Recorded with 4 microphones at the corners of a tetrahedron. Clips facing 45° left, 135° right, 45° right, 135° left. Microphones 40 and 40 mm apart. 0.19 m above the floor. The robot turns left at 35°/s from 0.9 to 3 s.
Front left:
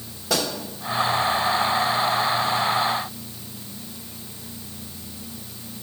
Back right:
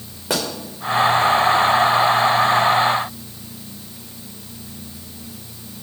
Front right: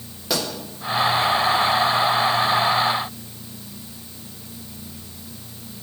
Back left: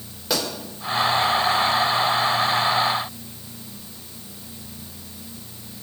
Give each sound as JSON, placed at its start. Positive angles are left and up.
{"t": 0.3, "sound": "a pop", "azimuth_deg": -130, "distance_m": 3.0}